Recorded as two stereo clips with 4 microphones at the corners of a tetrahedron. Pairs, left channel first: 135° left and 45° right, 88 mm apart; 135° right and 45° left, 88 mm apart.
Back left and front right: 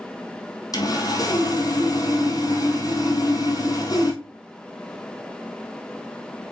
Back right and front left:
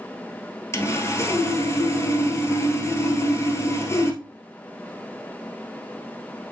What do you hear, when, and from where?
0.7 s sawing: 170° left, 1.5 m